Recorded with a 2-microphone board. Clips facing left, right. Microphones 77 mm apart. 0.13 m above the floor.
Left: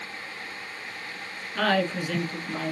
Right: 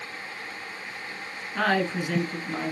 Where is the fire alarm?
I don't hear a fire alarm.